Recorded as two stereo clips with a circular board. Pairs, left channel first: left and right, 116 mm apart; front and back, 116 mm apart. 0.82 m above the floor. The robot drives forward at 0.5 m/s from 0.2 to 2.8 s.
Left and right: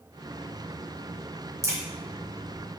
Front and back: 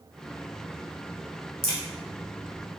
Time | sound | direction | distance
1.6 | a crack | 150° right | 3 m